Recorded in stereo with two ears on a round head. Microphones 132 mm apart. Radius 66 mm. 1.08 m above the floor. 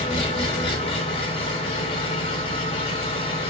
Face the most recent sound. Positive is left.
turn(degrees=35)  # may be behind; listen again after turning